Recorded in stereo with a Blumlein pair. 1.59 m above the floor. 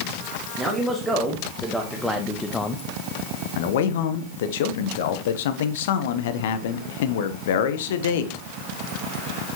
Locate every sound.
0.6 s a man speaking: 5° right, 1.9 m; by 2.8 s 20° left, 0.5 m
3.5 s a man speaking: 55° left, 0.9 m